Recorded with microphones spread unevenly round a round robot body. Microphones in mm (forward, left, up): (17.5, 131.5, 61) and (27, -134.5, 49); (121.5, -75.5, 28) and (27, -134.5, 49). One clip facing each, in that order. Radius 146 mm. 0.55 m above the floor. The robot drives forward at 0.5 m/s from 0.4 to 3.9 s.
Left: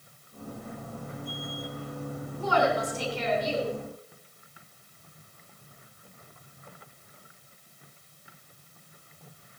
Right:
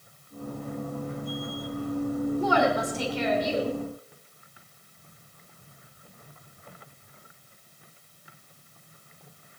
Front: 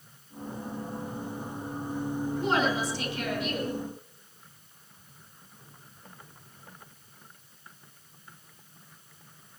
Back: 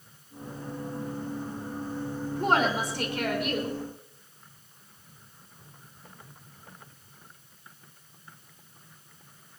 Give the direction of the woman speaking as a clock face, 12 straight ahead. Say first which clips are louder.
Left 2 dB, back 3 dB; 4 o'clock.